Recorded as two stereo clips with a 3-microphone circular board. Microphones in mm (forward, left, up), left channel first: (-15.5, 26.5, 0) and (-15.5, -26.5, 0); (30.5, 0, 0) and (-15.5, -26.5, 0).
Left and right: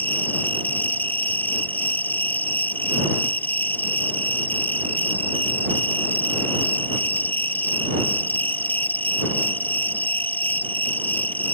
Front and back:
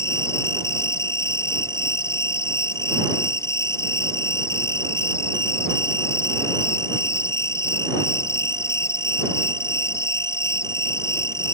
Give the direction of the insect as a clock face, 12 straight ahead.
11 o'clock.